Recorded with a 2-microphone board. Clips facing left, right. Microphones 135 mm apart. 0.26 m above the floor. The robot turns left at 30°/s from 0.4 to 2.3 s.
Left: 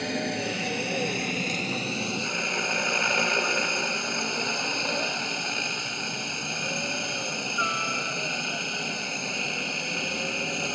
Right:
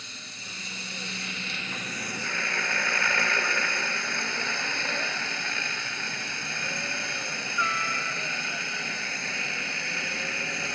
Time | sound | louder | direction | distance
0.0 | a helicopter | left 20 dB | 75° left | ?